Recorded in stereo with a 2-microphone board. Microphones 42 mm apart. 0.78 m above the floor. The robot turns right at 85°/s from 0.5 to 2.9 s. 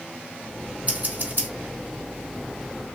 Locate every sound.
0.9 s scissors: 30° right (ahead or behind), 1.2 m; by 1.5 s 80° right, 1.2 m